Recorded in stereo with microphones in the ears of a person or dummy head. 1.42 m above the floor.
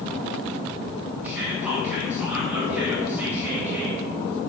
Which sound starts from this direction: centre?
Whispering, at 1.2 s.